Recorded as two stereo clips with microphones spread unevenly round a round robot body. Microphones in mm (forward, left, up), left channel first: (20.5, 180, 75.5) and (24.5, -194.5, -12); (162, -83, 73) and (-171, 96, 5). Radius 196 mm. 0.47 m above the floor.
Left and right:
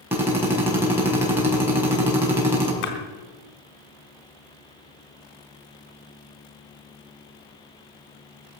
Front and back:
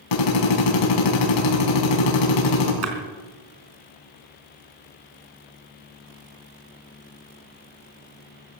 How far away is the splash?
About 4 m.